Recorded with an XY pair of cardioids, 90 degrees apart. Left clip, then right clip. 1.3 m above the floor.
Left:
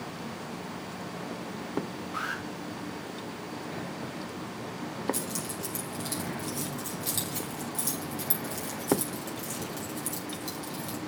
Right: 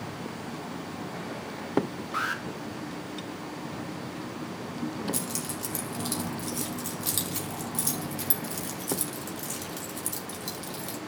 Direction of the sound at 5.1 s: 35° right.